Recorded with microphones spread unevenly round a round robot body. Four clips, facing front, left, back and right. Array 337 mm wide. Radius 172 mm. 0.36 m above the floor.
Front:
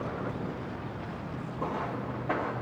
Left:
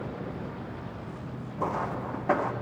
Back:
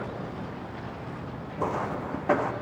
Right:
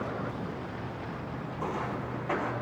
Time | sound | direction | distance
1.6 | footsteps | 155° left | 1.5 m